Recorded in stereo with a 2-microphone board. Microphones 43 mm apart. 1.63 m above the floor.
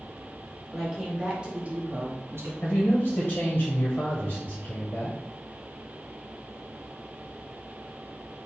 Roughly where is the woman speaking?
Centre.